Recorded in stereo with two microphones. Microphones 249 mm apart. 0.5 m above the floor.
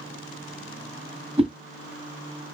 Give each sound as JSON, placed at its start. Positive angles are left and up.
{"t": 1.4, "sound": "a whoosh", "side_deg": -25, "distance_m": 1.4}